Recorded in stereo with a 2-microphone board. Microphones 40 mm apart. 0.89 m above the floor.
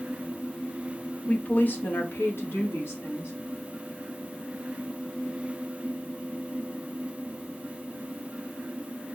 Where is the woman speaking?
35° left (ahead or behind), 0.7 m; by 3.3 s 80° left, 1.7 m.